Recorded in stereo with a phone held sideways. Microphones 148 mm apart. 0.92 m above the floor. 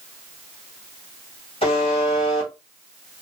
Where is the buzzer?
40° left (ahead or behind), 1.3 m.